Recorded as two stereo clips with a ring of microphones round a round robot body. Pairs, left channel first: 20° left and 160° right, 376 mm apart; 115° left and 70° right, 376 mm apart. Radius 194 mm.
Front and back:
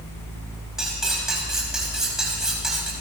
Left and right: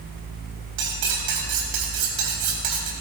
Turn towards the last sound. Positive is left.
turn(degrees=-70)